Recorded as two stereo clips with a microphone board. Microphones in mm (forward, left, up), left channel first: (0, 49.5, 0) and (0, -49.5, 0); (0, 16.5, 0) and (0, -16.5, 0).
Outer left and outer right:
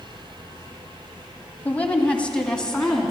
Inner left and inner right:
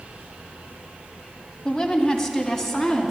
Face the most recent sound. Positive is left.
turn(degrees=5)  # may be behind; listen again after turning